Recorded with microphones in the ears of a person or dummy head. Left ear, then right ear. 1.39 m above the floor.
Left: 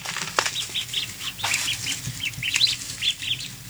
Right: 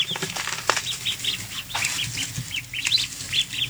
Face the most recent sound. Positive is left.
No sound to turn to.